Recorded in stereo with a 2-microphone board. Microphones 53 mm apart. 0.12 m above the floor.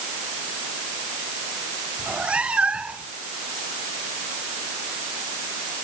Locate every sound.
2.0 s a cat meowing: 20° right (ahead or behind)